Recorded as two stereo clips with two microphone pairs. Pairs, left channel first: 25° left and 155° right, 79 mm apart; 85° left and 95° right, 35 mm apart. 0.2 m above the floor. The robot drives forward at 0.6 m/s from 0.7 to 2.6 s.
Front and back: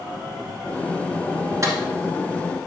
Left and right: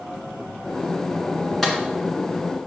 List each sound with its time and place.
1.6 s a clap: 165° left, 2.5 m